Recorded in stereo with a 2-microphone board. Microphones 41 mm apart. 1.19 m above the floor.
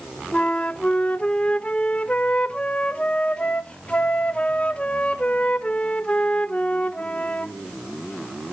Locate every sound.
0.3 s a flute: 30° left (ahead or behind), 0.7 m